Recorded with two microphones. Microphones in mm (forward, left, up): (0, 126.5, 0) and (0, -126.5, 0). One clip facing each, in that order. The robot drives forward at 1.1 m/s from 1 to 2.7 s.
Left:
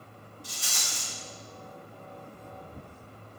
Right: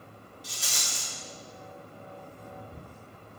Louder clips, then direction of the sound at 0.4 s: Right 2 dB; 75° right (ahead or behind).